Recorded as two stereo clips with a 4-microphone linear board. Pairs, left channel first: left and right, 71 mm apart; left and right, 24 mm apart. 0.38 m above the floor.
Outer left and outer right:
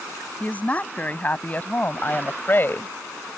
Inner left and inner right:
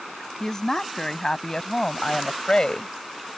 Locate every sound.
0.4 s a woman speaking: 20° left (ahead or behind); by 2.9 s 30° left (ahead or behind)